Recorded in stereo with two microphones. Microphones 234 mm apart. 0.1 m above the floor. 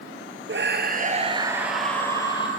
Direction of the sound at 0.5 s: 55° right (ahead or behind).